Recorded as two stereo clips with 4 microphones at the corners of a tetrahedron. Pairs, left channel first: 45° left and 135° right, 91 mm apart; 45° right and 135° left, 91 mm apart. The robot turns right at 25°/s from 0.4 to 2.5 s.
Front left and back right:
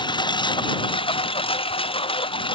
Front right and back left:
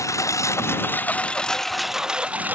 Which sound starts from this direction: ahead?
A lawn mower, at 0.0 s.